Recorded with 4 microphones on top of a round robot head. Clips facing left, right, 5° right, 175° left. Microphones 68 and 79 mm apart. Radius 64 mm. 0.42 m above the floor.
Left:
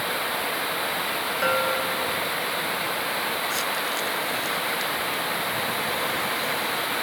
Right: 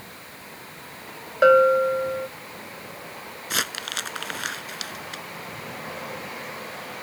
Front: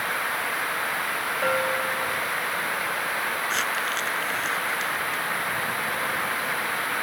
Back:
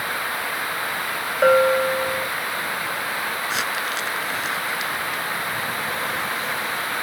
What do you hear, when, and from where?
0.0 s running water: 85° left
1.4 s a bell: 135° right
3.5 s crumpling: 105° right